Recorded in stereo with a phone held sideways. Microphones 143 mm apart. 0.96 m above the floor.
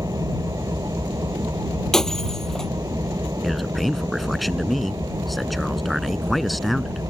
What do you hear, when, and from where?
0.0 s an engine running: 25° right (ahead or behind)
1.9 s breaking glass: 5° left (ahead or behind)
3.4 s a man speaking: centre (ahead or behind)